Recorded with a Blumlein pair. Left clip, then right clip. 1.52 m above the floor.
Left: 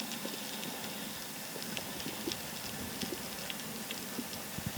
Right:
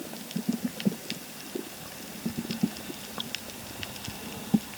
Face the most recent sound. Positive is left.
No sound to turn to.